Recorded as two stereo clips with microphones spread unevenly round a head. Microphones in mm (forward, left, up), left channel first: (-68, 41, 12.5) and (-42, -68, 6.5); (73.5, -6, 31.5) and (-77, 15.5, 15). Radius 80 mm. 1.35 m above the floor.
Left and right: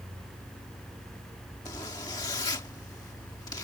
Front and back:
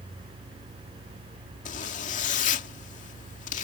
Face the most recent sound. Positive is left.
turn(degrees=35)